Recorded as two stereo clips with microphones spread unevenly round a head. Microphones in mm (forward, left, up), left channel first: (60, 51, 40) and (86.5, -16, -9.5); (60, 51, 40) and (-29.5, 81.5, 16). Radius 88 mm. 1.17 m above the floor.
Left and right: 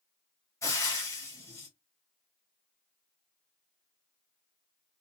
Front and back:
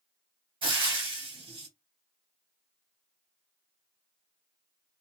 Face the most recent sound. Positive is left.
turn(degrees=125)